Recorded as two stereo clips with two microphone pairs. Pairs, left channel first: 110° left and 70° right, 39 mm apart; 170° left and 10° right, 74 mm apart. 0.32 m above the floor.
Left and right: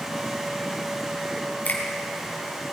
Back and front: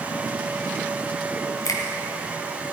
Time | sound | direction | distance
1.6 | a finger snap | 150° left | 1.9 m